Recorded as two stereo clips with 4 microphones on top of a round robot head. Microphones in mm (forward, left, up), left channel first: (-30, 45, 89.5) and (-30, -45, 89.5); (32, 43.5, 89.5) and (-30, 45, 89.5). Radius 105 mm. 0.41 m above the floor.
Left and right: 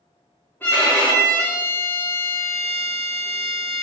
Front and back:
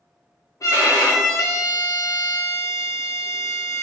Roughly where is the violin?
Ahead.